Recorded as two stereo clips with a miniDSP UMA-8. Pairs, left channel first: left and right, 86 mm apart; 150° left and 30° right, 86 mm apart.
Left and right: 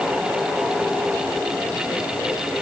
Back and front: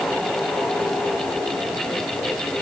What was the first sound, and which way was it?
Only background noise.